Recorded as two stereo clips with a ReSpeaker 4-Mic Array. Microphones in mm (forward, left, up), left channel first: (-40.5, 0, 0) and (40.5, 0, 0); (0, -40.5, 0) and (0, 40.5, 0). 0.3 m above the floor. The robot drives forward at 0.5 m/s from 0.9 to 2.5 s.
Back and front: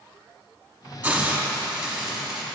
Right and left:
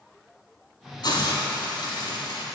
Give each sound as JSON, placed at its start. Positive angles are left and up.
{"t": 1.0, "sound": "a hiss", "azimuth_deg": -70, "distance_m": 2.0}